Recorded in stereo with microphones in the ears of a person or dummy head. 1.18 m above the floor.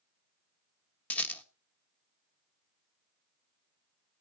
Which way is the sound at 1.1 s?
10° left (ahead or behind).